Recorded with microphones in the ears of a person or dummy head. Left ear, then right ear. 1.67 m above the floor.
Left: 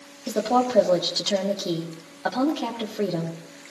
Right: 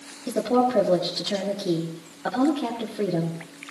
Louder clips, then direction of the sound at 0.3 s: Even; 20° left (ahead or behind).